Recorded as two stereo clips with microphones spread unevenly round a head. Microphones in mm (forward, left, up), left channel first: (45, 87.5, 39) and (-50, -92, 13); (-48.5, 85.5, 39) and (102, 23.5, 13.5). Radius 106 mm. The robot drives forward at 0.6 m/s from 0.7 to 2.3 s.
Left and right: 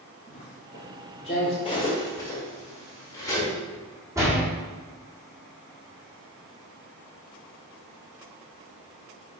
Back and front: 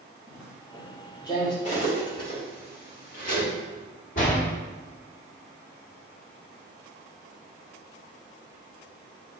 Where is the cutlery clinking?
125° left, 1.6 m; by 3.5 s 135° left, 1.8 m.